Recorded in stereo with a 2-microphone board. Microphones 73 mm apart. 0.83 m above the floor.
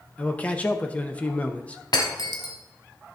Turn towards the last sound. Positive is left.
turn(degrees=65)  # may be behind; listen again after turning